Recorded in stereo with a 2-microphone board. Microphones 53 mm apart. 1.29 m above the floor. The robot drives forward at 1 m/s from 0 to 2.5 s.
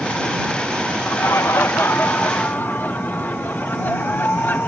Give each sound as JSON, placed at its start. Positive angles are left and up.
{"t": 1.1, "sound": "laughter", "side_deg": 75}